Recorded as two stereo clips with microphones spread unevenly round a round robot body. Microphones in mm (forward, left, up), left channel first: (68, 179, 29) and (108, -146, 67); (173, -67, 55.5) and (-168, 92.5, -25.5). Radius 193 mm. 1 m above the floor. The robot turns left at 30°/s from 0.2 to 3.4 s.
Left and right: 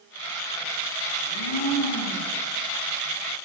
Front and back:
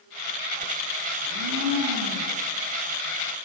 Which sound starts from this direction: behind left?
A blender, at 1.2 s.